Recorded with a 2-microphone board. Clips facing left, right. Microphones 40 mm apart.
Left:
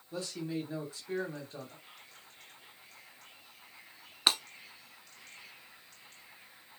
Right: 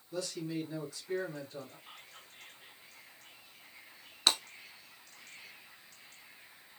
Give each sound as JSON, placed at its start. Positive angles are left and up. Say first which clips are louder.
{"t": 0.1, "sound": "a man speaking", "louder": "even", "side_deg": 25, "distance_m": 1.5}
{"t": 1.9, "sound": "whispering", "louder": "right 2 dB", "side_deg": -50, "distance_m": 2.5}
{"t": 4.3, "sound": "breaking glass", "louder": "left 1 dB", "side_deg": 20, "distance_m": 0.9}